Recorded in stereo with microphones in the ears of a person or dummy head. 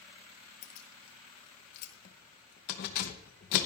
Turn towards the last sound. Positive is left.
turn(degrees=55)  # may be behind; listen again after turning